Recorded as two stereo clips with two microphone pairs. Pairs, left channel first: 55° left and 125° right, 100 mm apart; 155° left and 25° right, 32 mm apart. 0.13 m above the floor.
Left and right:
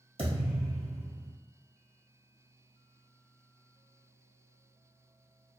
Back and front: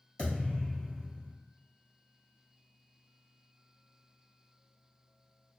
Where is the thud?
140° right, 1.5 m.